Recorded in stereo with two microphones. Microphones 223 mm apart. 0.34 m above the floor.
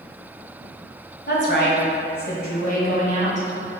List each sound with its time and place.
1.3 s a woman speaking: 55° left (ahead or behind), 1.8 m; by 3.5 s 35° left (ahead or behind), 2 m